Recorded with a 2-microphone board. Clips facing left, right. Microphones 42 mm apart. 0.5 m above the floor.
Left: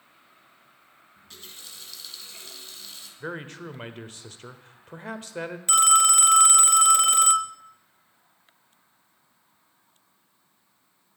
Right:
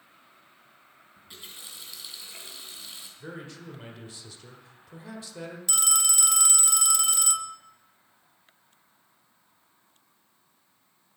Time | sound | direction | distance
1.2 | a running tap | 15° right (ahead or behind) | 3 m
3.2 | a man speaking | 50° left (ahead or behind) | 1.5 m
5.7 | a phone ringing | 40° left (ahead or behind) | 0.7 m